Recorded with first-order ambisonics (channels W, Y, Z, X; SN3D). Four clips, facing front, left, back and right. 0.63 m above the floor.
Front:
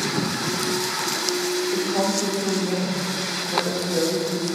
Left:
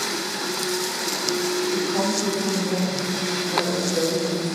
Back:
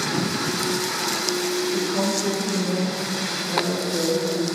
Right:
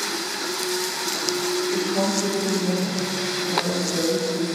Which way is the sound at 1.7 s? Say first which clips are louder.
Even, front 1 dB; 15° left.